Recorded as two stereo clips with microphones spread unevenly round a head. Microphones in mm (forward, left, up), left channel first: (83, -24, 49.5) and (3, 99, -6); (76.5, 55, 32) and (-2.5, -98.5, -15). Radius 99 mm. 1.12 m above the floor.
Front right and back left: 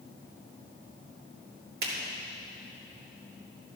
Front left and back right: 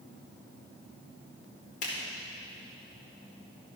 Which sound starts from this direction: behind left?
A finger snap, at 1.8 s.